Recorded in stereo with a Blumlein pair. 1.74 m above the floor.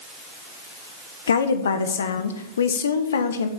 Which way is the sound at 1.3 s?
65° left.